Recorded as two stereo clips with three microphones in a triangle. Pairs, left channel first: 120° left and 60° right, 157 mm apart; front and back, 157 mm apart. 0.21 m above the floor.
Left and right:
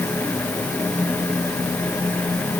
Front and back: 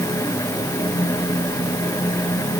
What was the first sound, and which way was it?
Only background noise.